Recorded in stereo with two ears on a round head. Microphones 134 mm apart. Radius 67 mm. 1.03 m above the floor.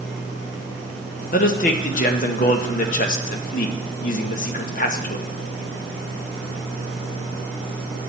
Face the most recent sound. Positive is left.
turn(degrees=55)  # may be behind; listen again after turning